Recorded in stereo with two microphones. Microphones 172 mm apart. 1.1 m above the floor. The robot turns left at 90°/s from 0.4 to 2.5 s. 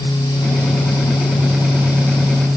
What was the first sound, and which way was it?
Only background noise.